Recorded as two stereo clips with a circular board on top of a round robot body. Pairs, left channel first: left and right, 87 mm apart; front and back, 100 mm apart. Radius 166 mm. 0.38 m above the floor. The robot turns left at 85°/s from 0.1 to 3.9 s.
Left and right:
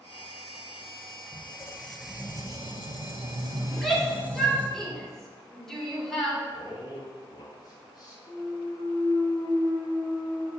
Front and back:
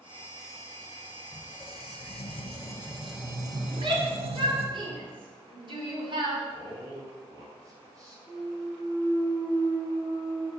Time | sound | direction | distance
1.3 | a squeak | 55° left | 0.6 m
3.7 | a shout | 165° right | 2 m
6.5 | a man speaking | 130° left | 2.5 m
8.3 | a clunk | 130° left | 2.5 m